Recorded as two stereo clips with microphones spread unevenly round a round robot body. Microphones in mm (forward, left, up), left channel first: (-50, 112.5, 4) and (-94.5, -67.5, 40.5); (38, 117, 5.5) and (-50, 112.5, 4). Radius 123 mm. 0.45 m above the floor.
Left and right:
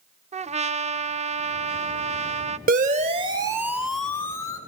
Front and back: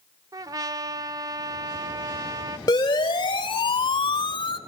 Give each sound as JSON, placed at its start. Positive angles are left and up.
{"t": 0.3, "sound": "a trumpet", "azimuth_deg": -155, "distance_m": 1.2}
{"t": 2.7, "sound": "a siren", "azimuth_deg": -50, "distance_m": 2.5}